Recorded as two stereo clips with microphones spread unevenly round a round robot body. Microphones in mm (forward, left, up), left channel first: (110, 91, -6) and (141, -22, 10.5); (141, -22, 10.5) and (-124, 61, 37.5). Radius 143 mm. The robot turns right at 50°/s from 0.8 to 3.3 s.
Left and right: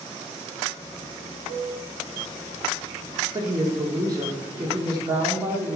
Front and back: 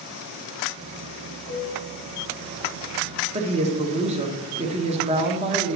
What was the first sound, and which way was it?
A piano, 80° right.